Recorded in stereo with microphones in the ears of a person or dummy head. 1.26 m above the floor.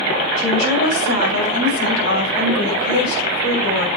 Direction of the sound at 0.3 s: 85° left.